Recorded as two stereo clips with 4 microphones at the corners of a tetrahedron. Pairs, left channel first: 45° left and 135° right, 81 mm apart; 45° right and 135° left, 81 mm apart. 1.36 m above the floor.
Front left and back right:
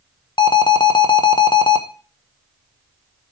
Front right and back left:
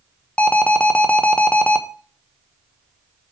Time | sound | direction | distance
0.4 | an alarm | 30° left | 0.9 m